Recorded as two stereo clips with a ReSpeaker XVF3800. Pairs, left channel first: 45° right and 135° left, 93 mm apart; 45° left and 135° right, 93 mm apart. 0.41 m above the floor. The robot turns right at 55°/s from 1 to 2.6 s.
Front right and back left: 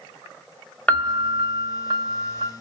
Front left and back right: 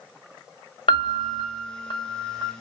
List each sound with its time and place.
0.9 s a piano: 30° left, 0.8 m; by 2.5 s 115° left, 0.8 m